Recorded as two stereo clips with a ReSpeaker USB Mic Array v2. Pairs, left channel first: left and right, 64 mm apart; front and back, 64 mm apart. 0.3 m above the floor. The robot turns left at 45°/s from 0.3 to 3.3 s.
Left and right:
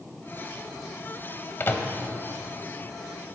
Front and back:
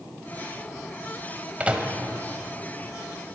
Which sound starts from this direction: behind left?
A microwave, at 1.6 s.